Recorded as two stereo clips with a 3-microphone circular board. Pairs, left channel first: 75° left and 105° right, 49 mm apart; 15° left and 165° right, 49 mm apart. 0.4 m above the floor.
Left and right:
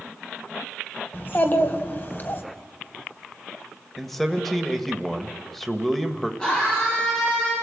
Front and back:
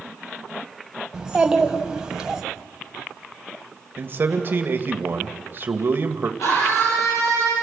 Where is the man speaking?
155° left, 1.6 m.